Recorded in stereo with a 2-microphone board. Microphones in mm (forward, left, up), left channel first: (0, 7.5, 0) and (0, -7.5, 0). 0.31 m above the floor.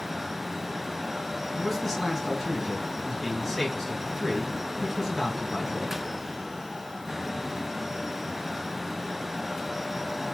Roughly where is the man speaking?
Centre.